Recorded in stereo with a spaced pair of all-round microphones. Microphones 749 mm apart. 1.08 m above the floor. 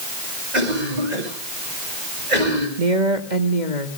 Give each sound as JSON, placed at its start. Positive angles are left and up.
{"t": 0.5, "sound": "a cough", "side_deg": -70, "distance_m": 7.5}
{"t": 2.8, "sound": "a woman speaking", "side_deg": -75, "distance_m": 2.0}